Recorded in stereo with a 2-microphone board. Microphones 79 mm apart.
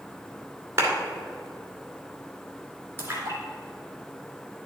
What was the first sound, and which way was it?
A clap, 40° right (ahead or behind).